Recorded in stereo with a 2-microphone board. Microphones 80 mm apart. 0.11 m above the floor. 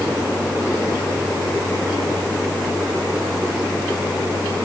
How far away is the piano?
I don't hear a piano.